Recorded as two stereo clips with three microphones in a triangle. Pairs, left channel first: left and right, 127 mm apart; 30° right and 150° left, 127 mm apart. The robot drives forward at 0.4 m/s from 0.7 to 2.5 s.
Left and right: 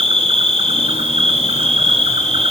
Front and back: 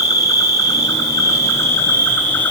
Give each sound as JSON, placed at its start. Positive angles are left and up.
{"t": 0.0, "sound": "an insect", "azimuth_deg": -85, "distance_m": 2.5}